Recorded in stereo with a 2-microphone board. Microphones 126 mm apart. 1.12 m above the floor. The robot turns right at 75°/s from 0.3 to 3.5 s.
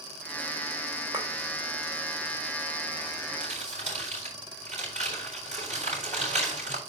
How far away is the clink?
About 2.5 m.